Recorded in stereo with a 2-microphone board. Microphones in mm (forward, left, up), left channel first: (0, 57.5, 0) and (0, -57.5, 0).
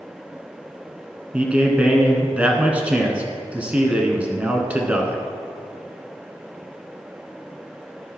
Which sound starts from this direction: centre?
A man speaking, at 1.3 s.